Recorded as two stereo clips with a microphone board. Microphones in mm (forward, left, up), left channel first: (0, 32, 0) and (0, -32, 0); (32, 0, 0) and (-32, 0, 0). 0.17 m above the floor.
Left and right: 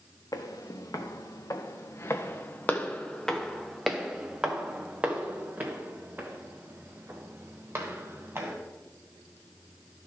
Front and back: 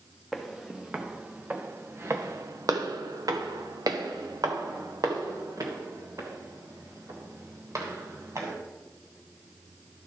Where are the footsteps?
95° left, 1.5 m; by 8.5 s 145° right, 3.5 m.